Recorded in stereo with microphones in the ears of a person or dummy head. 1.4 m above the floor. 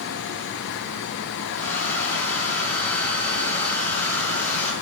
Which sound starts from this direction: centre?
A hair dryer, at 1.5 s.